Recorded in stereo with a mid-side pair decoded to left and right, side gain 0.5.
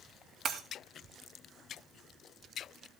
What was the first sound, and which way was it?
Breaking glass, 60° right.